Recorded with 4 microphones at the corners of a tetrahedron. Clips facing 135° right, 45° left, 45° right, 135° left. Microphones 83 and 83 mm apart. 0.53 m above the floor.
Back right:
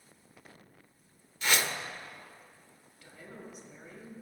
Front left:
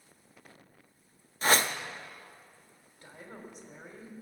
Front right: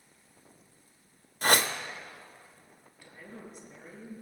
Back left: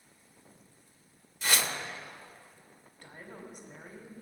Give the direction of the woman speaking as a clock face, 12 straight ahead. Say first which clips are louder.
Front left 1 dB, even; 9 o'clock.